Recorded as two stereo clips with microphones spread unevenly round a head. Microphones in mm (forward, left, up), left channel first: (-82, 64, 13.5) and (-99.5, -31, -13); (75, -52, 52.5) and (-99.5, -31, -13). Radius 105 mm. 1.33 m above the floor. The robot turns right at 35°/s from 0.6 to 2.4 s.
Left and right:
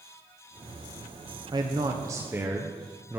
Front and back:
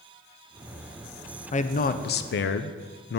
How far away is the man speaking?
About 0.5 m.